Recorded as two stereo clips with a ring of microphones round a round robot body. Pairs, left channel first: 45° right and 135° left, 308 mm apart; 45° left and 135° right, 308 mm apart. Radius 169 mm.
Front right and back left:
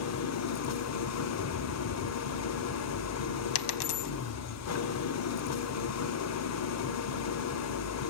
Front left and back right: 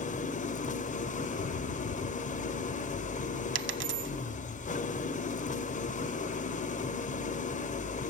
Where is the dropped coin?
80° right, 0.8 m.